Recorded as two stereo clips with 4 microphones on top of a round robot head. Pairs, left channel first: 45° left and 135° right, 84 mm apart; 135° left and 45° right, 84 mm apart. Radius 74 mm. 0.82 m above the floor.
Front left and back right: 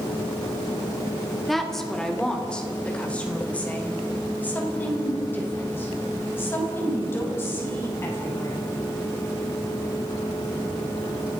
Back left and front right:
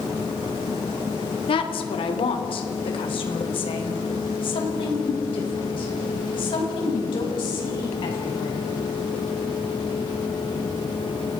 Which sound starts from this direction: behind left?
A woman speaking, at 1.5 s.